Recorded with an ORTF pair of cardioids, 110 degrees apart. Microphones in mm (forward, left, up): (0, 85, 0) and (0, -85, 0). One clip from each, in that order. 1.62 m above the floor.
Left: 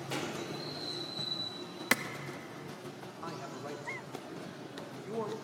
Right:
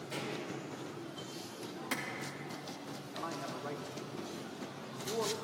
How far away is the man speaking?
About 1.6 m.